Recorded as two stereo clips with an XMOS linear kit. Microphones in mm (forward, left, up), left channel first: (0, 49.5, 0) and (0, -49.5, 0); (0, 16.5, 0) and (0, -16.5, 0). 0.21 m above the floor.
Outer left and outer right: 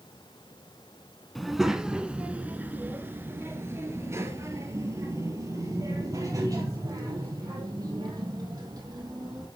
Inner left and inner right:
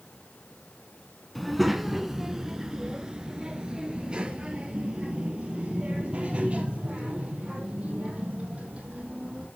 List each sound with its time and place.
1.4 s a child speaking: centre (ahead or behind), 1.2 m; by 9.5 s 40° right (ahead or behind), 5 m